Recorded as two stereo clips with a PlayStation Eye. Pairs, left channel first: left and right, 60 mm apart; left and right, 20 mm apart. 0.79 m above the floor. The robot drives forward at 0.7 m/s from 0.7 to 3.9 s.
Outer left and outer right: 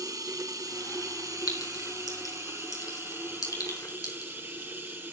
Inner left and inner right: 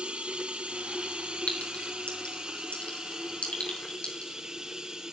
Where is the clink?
85° left, 4.5 m; by 4.5 s 75° left (ahead or behind), 4.5 m.